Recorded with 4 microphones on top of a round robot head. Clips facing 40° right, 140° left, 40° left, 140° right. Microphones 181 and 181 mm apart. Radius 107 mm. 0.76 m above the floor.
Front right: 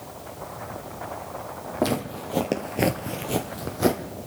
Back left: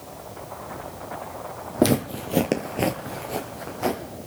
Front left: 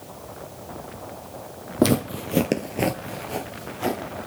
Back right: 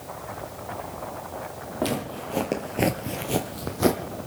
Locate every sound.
1.8 s footsteps: 80° left, 1.7 m; by 4.0 s 95° right, 2.0 m